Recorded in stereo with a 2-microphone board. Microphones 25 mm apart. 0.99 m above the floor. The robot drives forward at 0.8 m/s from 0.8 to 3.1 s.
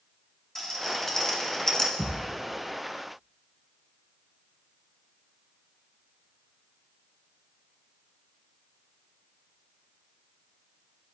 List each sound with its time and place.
0.6 s a rattle: 10° left (ahead or behind), 1.8 m; by 1.9 s 20° left (ahead or behind), 0.9 m
2.0 s a thud: 70° right (ahead or behind), 3 m; by 2.4 s 65° right (ahead or behind), 3 m